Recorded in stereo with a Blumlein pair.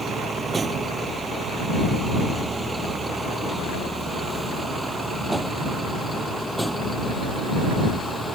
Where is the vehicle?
15° right; by 8.3 s straight ahead.